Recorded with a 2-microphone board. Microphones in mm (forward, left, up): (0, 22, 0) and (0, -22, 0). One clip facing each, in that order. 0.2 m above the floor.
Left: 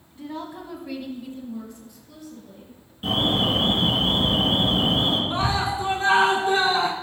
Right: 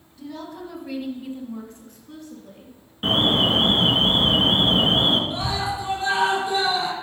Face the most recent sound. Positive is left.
turn(degrees=50)  # may be behind; listen again after turning